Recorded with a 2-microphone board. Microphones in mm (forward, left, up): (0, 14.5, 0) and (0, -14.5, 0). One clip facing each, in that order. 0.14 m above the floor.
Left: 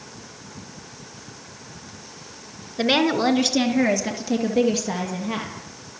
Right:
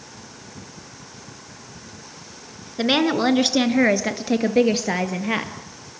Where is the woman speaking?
Centre (ahead or behind), 2 m; by 5.5 s 50° right (ahead or behind), 3.5 m.